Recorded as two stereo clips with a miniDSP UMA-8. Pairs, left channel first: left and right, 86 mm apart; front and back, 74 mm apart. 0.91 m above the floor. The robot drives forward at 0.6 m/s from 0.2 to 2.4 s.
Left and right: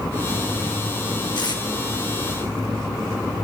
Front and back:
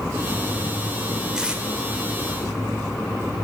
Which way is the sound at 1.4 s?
100° left.